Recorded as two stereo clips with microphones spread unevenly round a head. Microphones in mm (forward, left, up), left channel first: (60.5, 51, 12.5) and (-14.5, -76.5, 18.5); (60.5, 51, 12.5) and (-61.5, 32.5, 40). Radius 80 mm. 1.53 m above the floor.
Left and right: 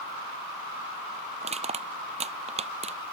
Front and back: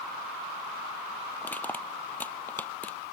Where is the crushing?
75° right.